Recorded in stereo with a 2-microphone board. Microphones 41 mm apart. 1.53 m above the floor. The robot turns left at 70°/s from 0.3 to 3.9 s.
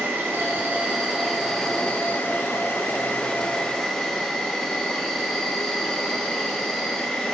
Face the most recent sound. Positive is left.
turn(degrees=10)